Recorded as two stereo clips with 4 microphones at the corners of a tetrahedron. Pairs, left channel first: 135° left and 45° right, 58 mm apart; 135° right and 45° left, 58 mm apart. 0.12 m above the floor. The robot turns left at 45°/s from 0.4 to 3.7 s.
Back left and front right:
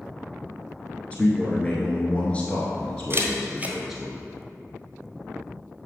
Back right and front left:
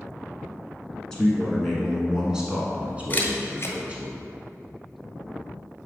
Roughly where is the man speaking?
Behind.